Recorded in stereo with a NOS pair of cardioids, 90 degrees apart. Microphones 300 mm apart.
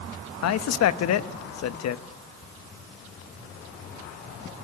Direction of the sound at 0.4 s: 60° left.